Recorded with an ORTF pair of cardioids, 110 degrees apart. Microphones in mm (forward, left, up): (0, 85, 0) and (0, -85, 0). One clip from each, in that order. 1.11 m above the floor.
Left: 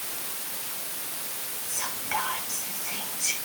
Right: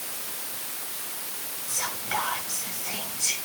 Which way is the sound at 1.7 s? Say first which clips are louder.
Right 1 dB; 30° right.